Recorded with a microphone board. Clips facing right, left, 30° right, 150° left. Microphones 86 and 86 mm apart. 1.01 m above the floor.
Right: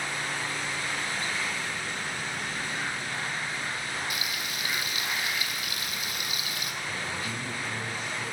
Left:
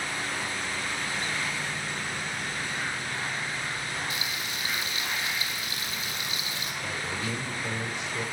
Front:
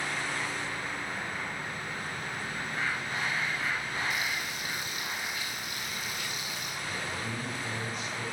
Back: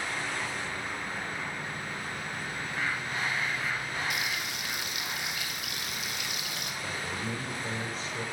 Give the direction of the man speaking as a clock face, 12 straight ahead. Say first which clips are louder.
Left 2 dB, back 1 dB; 9 o'clock.